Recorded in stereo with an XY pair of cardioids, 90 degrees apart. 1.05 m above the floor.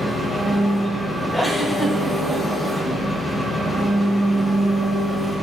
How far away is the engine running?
About 4 m.